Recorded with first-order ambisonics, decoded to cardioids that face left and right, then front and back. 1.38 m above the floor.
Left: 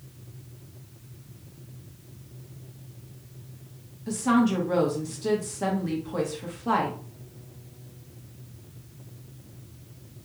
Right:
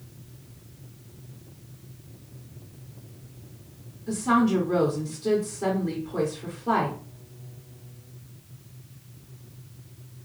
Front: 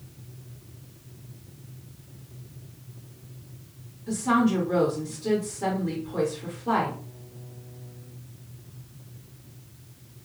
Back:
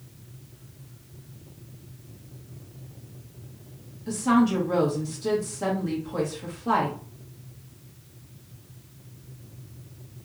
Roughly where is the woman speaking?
Behind left.